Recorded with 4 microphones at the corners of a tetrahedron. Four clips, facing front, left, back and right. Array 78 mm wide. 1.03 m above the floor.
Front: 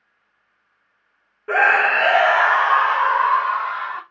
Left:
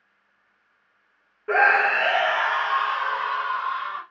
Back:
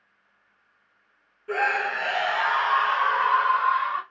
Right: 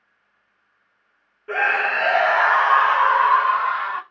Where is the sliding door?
No sliding door in this recording.